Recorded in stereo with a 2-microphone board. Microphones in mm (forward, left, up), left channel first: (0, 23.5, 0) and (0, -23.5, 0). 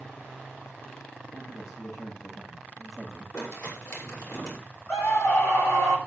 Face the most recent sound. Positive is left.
turn(degrees=80)